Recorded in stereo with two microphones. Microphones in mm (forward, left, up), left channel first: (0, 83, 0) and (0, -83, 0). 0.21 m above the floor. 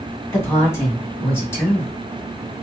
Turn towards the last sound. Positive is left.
turn(degrees=15)  # may be behind; listen again after turning